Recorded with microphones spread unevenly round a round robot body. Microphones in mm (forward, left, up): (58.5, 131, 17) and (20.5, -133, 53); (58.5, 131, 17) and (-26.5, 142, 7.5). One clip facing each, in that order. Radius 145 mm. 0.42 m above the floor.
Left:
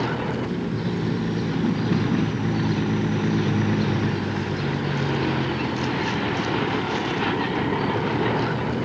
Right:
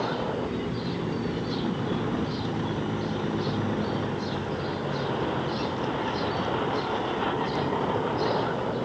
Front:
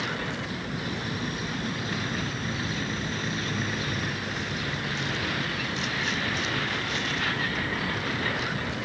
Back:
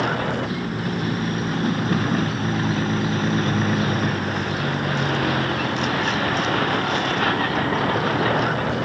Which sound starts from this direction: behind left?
A vehicle, at 0.0 s.